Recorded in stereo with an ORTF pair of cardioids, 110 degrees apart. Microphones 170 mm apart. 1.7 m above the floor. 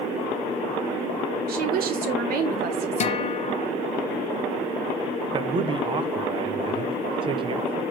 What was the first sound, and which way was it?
A woman speaking, 60° right.